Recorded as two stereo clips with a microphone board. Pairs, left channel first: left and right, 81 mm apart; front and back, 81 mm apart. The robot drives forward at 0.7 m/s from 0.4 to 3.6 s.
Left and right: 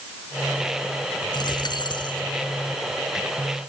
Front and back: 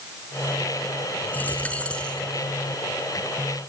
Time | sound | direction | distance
1.3 | a dropped coin | 70° left | 4 m